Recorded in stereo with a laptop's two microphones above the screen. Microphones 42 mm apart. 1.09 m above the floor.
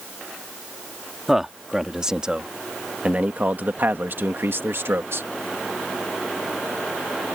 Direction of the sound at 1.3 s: 10° right (ahead or behind).